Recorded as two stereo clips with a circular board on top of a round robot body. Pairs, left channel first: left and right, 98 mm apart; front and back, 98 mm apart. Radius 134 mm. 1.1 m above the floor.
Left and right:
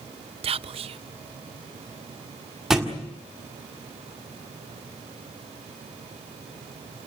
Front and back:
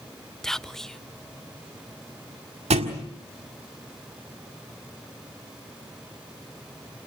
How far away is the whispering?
About 0.5 m.